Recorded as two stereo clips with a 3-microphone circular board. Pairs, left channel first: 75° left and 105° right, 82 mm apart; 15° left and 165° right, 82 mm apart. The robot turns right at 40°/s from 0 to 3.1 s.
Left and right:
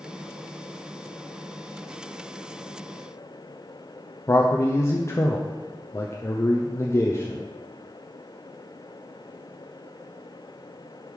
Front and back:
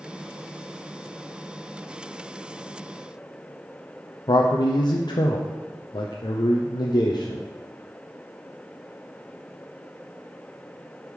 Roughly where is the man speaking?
Ahead left.